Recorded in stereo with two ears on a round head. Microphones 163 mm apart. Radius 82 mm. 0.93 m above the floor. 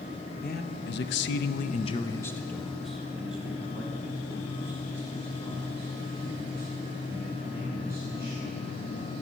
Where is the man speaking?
50° left (ahead or behind), 0.8 m; by 9.1 s 20° right (ahead or behind), 5 m.